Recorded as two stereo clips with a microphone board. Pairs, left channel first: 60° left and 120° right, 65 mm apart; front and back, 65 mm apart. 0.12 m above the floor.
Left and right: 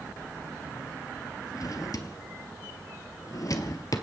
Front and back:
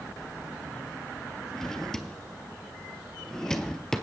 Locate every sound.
1.5 s a drawer: 80° left, 1.4 m